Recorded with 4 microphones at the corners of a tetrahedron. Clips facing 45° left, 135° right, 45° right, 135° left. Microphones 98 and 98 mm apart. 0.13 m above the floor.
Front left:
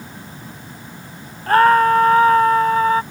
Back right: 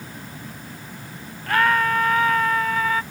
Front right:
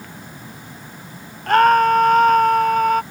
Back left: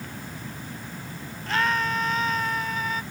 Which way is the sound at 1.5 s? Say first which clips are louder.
Front left 8 dB, front right 13 dB; 5° right.